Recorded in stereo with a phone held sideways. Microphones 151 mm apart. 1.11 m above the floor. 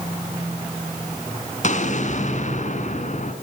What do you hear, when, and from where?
1.6 s an explosion: 55° left (ahead or behind), 2.5 m